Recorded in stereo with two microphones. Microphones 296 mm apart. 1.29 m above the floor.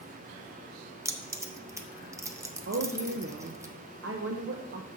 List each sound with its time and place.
1.1 s keys jangling: 10° right (ahead or behind), 0.6 m
2.7 s a woman speaking: 45° right (ahead or behind), 0.6 m